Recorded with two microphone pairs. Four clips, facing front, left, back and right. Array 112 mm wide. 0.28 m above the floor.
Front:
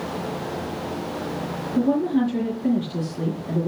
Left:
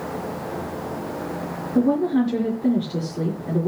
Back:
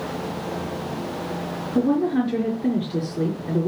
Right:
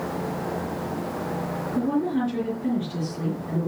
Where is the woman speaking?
135° left, 4.5 m.